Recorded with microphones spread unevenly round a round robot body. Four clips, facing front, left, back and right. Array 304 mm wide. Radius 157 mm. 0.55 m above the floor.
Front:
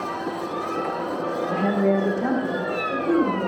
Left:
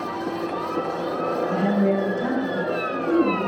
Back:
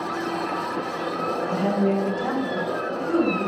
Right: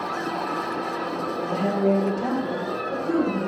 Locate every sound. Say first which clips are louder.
1.5 s a woman speaking: right 1 dB, front 2 dB; 15° left, 0.7 m; by 3.5 s 5° right, 1.7 m